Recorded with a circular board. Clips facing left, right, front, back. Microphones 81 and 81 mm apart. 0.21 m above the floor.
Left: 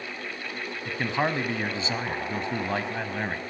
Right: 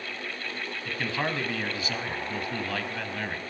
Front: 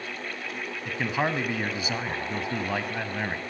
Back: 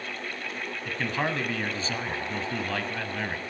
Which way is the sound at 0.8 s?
60° left.